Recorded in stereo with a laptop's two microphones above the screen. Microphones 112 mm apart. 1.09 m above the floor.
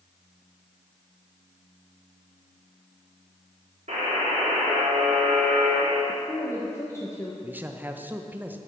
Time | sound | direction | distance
3.9 | a buzzer | 75° right (ahead or behind) | 3 m
6.1 | a woman speaking | 25° left (ahead or behind) | 1.2 m
7.4 | a man speaking | 15° right (ahead or behind) | 0.7 m